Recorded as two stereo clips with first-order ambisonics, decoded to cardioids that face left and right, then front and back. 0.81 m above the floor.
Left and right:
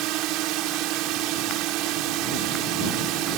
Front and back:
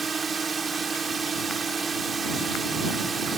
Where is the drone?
110° right.